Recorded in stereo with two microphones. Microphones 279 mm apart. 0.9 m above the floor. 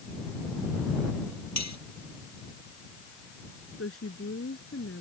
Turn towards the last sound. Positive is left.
turn(degrees=50)  # may be behind; listen again after turning